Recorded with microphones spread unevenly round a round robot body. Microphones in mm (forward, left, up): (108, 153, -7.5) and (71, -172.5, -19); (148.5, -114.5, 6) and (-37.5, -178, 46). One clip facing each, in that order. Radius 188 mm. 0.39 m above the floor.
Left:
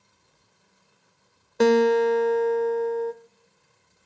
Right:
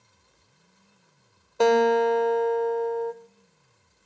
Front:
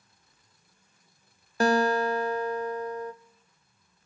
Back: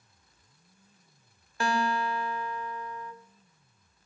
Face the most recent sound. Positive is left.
turn(degrees=20)